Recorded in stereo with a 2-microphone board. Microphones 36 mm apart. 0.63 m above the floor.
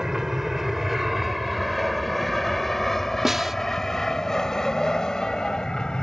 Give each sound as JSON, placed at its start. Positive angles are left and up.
{"t": 0.0, "sound": "an aircraft", "side_deg": -15}
{"t": 3.2, "sound": "a snare drum", "side_deg": -10}